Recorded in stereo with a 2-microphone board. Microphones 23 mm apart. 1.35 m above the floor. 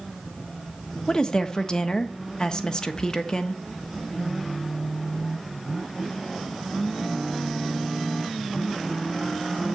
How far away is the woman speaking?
About 1.2 m.